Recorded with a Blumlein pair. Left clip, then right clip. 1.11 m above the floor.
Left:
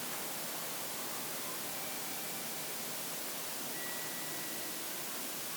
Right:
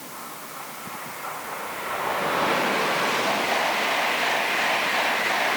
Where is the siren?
I don't hear a siren.